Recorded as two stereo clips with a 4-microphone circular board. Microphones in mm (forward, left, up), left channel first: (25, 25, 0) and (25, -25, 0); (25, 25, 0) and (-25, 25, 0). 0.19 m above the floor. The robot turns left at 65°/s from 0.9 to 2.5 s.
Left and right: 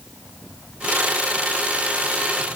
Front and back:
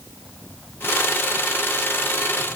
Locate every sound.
Only background noise.